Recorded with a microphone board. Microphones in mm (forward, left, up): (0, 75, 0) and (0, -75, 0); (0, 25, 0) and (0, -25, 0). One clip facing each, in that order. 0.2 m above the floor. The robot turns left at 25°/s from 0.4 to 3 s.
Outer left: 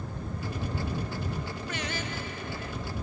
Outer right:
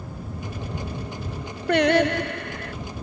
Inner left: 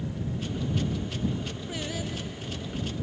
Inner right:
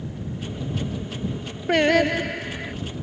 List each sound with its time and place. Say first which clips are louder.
1.7 s singing: outer right 21 dB, inner right 19 dB; 70° right (ahead or behind); by 2.7 s 75° right (ahead or behind)